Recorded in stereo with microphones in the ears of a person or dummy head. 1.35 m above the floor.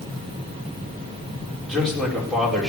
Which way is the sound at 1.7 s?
Centre (ahead or behind).